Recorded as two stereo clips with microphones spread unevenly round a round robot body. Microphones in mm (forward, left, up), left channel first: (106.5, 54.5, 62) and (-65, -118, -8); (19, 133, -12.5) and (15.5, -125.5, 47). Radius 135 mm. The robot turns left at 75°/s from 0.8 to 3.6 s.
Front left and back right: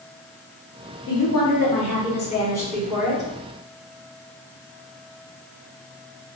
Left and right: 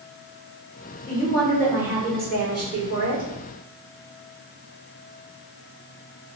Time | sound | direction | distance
1.1 | a woman speaking | 65° left | 1.8 m